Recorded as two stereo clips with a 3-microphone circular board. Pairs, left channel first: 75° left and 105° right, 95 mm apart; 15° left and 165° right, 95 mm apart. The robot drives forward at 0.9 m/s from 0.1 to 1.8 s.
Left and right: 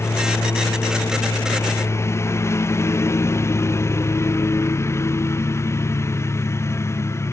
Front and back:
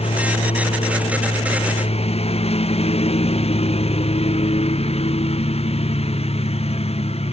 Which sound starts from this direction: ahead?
A lawn mower, at 0.0 s.